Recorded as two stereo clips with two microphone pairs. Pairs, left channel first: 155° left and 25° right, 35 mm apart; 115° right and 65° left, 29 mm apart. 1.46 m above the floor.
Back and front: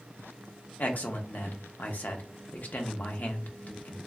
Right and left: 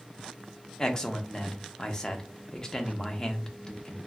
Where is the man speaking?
175° right, 0.6 m.